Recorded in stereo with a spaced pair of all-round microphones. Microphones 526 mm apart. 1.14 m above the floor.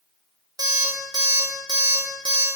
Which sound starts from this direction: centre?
An alarm clock, at 0.6 s.